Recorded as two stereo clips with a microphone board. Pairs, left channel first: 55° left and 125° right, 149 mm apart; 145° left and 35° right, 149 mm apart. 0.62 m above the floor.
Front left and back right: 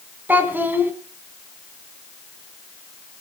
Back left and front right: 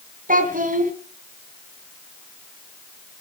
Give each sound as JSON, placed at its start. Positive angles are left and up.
{"t": 0.3, "sound": "a child speaking", "azimuth_deg": -45, "distance_m": 3.0}